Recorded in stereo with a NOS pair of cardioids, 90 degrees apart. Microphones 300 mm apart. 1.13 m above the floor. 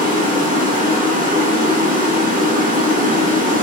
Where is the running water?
25° right, 1.1 m.